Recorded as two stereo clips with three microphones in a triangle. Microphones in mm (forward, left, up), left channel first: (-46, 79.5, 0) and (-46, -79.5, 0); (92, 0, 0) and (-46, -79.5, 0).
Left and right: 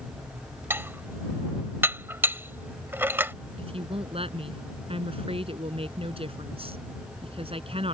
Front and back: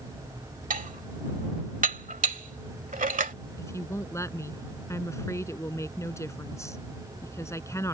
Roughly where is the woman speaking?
Ahead right.